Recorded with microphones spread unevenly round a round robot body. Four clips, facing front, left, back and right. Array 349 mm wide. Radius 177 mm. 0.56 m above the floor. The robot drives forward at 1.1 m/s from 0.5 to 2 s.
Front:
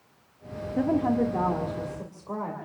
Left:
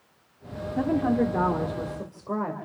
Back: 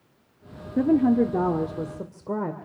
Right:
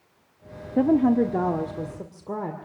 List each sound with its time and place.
0.8 s a woman speaking: 135° right, 1.1 m; by 2.6 s 165° right, 2 m